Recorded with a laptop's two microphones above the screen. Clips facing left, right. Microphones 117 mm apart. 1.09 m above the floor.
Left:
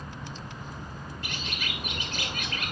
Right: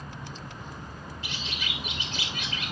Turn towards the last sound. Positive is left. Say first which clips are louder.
# left 1 dB
turn(degrees=50)  # may be behind; listen again after turning